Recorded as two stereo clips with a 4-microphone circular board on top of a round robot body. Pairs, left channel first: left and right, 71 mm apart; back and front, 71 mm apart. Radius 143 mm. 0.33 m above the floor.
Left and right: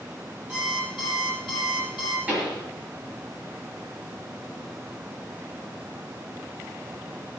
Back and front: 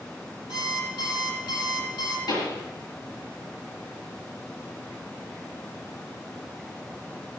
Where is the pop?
160° right, 6.5 m.